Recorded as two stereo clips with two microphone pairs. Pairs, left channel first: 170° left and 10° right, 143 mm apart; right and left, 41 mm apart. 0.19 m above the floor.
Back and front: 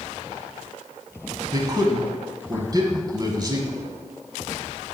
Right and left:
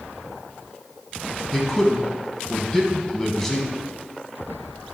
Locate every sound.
1.5 s a man speaking: 15° right, 1.1 m